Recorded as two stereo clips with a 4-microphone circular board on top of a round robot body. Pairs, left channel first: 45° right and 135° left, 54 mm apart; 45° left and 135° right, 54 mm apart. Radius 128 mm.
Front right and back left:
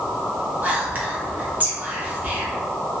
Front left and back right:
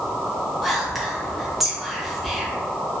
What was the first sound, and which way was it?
Whispering, 140° left.